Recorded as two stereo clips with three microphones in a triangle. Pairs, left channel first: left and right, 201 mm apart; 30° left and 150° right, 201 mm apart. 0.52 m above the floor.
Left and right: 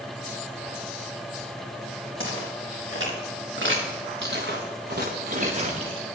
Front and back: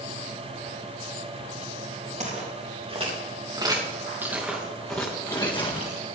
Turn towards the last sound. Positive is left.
turn(degrees=-25)